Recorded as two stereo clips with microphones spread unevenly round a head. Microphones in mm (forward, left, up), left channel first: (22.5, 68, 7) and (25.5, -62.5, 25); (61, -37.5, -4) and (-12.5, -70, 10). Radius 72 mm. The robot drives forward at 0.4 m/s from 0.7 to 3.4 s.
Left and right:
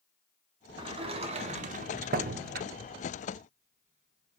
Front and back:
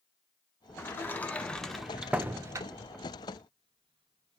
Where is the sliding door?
35° right, 0.8 m; by 4.4 s 130° right, 0.6 m.